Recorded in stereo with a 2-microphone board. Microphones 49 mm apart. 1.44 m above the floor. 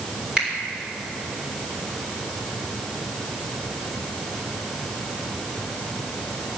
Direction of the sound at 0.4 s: 20° right (ahead or behind).